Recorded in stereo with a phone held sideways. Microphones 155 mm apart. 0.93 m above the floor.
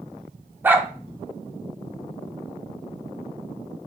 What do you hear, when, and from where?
0.6 s a dog barking: 15° right (ahead or behind), 0.8 m